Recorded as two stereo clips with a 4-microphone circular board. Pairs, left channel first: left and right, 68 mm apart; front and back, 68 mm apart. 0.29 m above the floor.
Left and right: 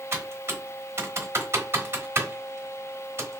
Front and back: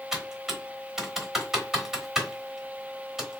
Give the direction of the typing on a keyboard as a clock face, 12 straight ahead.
3 o'clock.